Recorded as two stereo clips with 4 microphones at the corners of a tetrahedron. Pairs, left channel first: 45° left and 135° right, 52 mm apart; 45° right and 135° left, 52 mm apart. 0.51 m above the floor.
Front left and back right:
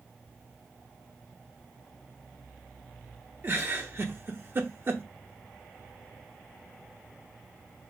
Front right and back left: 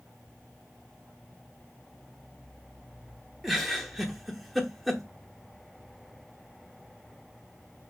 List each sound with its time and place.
3.4 s a giggle: 135° right, 0.8 m